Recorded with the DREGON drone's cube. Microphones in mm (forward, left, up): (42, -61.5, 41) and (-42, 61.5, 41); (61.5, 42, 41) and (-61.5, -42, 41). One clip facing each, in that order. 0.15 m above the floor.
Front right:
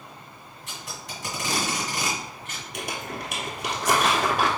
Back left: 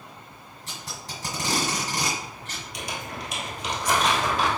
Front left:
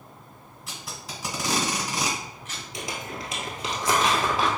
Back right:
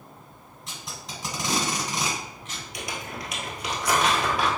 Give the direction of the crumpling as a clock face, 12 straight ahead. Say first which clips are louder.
Front right 2 dB, front left 1 dB; 1 o'clock.